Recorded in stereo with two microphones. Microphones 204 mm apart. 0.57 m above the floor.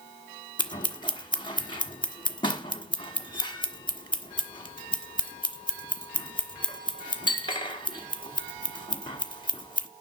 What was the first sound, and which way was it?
Scissors, 20° left (ahead or behind).